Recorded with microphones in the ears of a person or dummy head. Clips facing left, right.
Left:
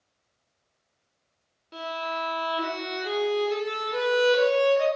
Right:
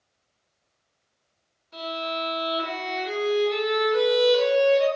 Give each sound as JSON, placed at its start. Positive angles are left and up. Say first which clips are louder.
{"t": 1.7, "sound": "a violin", "louder": "right 2 dB", "side_deg": 80, "distance_m": 1.1}